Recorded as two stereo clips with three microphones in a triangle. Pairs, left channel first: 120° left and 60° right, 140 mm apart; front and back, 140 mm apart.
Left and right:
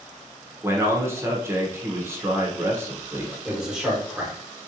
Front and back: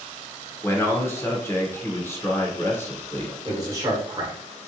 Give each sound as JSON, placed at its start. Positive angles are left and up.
{"t": 0.6, "sound": "a man speaking", "azimuth_deg": -30, "distance_m": 0.8}
{"t": 3.5, "sound": "a man speaking", "azimuth_deg": -140, "distance_m": 1.1}